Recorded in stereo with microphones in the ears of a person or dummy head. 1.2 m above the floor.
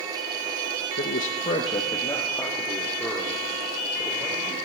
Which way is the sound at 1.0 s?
45° left (ahead or behind).